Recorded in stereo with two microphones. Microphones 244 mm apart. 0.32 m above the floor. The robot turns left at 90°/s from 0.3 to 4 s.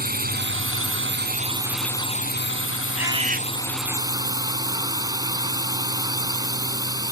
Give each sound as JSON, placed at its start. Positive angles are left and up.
{"t": 0.0, "sound": "a drone", "azimuth_deg": -45}
{"t": 3.0, "sound": "a bird", "azimuth_deg": -5}